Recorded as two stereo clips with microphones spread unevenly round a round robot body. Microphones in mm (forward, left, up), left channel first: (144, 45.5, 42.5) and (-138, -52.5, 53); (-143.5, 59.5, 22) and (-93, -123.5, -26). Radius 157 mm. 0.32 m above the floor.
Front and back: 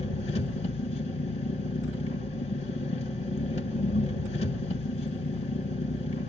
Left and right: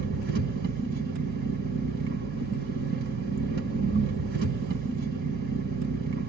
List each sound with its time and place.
0.0 s an engine running: 50° right, 1.5 m